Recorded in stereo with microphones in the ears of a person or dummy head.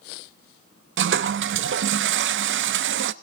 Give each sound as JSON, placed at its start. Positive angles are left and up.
{"t": 1.0, "sound": "a toilet flushing", "side_deg": -55, "distance_m": 0.6}